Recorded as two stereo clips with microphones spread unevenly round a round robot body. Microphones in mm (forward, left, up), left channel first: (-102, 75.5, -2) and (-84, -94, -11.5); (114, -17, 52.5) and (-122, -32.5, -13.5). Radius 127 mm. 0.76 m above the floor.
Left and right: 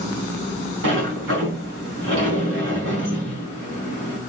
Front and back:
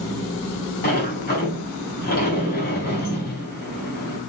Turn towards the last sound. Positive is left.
turn(degrees=-50)